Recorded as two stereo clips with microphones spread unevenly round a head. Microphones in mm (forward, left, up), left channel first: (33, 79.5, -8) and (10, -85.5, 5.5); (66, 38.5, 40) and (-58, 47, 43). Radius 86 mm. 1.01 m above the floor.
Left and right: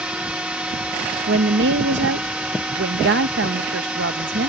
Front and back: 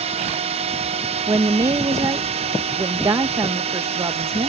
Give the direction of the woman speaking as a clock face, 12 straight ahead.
4 o'clock.